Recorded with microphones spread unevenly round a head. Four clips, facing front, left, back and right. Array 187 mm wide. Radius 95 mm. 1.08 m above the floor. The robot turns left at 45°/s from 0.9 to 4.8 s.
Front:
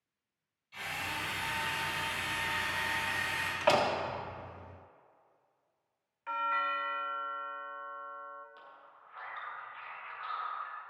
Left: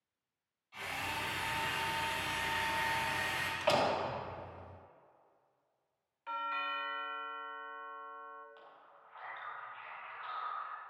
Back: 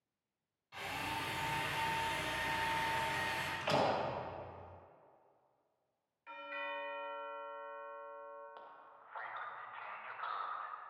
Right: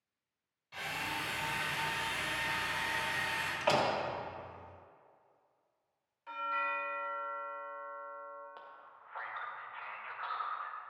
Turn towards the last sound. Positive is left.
turn(degrees=-120)